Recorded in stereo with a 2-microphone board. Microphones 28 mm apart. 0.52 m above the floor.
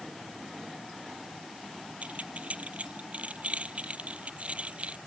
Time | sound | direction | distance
2.0 | keys jangling | 60° right (ahead or behind) | ?